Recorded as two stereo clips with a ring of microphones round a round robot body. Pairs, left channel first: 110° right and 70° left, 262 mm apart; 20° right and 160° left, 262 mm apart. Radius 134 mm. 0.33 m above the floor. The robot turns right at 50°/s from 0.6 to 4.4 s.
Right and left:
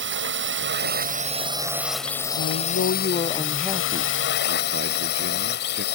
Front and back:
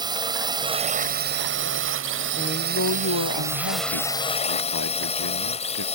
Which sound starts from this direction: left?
A drone, at 0.0 s.